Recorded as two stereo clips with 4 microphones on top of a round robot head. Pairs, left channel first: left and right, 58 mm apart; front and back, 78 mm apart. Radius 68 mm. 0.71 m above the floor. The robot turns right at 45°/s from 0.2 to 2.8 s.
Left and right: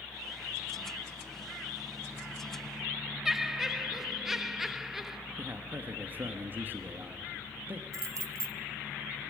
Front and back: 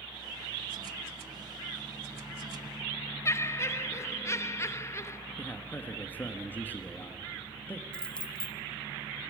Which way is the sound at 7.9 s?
75° right.